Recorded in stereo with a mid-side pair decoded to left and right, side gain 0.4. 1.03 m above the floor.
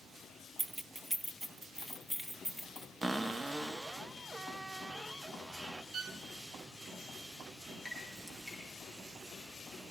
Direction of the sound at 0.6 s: 25° right.